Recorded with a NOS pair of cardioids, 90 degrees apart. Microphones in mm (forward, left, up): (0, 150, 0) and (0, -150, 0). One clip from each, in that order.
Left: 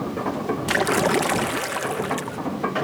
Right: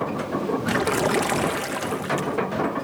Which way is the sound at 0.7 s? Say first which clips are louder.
Left 3 dB; 25° left.